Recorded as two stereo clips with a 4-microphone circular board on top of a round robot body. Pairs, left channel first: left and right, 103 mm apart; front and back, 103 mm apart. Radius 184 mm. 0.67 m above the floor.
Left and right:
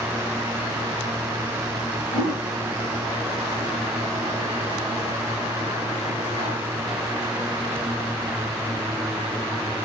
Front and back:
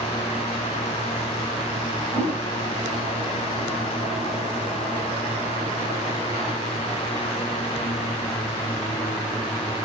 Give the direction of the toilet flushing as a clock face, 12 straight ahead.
11 o'clock.